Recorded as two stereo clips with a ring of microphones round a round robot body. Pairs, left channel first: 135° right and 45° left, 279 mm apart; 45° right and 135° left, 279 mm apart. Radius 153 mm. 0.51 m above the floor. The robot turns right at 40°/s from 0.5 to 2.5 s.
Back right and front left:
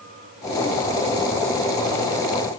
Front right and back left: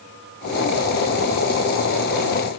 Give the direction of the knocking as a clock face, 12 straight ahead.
I don't hear knocking.